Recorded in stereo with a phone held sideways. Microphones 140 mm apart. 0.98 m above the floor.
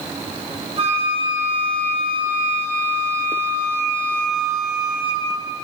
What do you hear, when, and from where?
0.8 s a flute: 50° right (ahead or behind), 1.1 m